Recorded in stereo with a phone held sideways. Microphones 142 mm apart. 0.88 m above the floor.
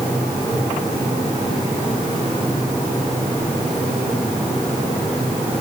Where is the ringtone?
I don't hear a ringtone.